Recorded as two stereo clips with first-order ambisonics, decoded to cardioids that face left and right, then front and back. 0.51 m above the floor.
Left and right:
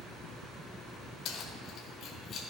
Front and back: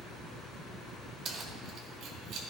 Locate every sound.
1.2 s keys jangling: 125° left, 1.2 m; by 2.4 s 145° left, 1.8 m